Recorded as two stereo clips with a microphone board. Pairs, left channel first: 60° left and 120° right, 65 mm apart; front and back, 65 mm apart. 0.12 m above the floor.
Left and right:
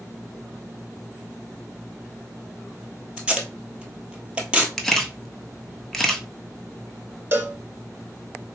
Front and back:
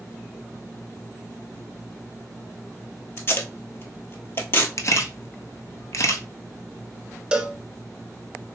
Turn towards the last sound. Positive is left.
turn(degrees=-115)